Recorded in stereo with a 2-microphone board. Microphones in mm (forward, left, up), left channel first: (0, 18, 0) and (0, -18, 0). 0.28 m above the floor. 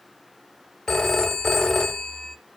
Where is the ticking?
No ticking in this recording.